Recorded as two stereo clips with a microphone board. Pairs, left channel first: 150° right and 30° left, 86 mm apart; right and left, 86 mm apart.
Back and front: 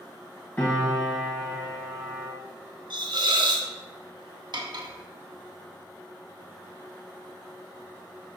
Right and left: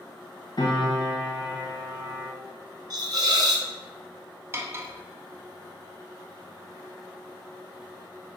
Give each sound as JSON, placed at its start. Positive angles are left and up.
{"t": 0.6, "sound": "a piano", "azimuth_deg": -90, "distance_m": 1.7}
{"t": 2.9, "sound": "a hiss", "azimuth_deg": 50, "distance_m": 0.6}
{"t": 4.5, "sound": "cutlery clinking", "azimuth_deg": 35, "distance_m": 0.6}